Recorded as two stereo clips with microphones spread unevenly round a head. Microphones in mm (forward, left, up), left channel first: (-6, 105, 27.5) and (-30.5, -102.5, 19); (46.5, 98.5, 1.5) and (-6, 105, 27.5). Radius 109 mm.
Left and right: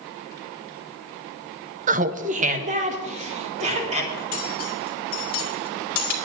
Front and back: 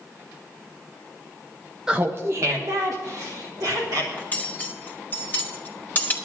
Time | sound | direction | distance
1.9 | laughter | 140° right | 0.5 m
4.2 | cutlery clinking | 65° left | 2 m